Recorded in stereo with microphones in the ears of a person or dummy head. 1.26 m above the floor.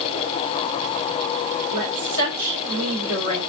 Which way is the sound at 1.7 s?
75° right (ahead or behind).